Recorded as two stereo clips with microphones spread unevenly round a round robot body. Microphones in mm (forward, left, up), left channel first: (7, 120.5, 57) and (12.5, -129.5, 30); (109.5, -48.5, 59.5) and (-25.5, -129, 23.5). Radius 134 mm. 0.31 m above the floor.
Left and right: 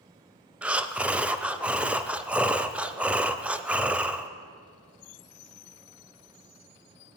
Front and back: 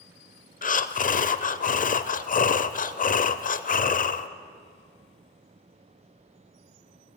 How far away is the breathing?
About 0.6 m.